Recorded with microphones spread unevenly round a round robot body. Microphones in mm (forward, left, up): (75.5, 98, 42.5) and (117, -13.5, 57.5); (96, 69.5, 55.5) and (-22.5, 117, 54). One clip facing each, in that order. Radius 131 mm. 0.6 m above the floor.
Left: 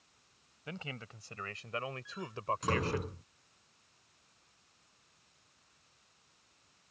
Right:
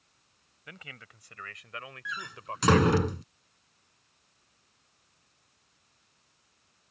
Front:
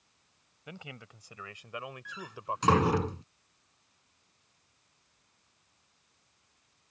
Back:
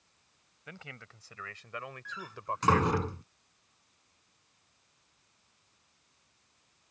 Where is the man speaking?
50° left; by 3.0 s 65° left.